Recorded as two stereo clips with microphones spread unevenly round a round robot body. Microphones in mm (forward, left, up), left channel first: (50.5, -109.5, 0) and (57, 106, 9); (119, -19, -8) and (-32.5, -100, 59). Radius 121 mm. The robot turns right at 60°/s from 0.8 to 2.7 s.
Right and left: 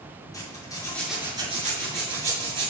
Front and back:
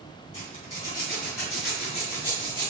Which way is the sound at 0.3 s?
20° right.